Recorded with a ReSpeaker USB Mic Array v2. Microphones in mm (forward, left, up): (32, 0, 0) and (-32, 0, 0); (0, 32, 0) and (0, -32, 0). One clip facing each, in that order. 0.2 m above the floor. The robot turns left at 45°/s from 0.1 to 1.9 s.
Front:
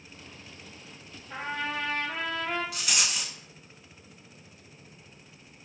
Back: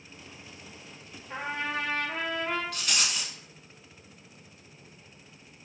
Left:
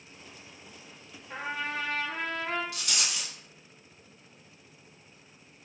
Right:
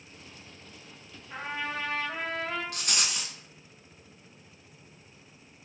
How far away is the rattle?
About 0.6 m.